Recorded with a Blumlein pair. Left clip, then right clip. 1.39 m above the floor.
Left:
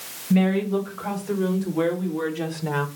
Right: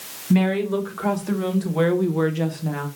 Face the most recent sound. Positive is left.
turn(degrees=30)